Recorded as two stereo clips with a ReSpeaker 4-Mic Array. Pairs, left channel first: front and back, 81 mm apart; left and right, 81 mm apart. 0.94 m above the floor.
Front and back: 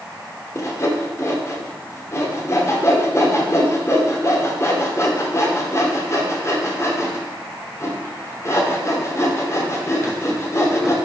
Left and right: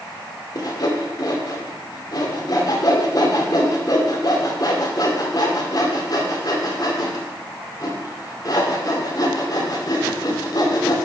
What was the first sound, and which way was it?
Sawing, 55° left.